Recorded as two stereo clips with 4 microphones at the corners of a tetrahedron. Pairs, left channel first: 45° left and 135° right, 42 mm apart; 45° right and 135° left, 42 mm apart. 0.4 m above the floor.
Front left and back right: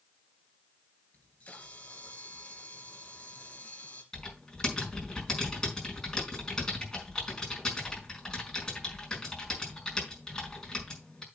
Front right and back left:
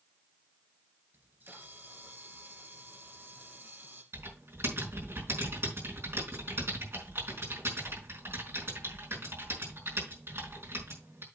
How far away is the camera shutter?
About 3 m.